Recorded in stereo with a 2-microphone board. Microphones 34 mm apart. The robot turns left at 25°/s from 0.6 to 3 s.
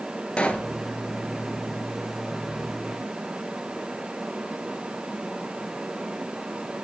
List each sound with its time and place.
0.4 s a pop: 30° left (ahead or behind), 1.6 m